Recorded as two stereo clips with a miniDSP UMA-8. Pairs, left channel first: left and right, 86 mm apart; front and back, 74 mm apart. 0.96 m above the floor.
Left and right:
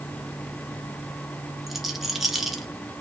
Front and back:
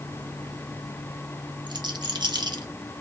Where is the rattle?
175° right, 0.9 m.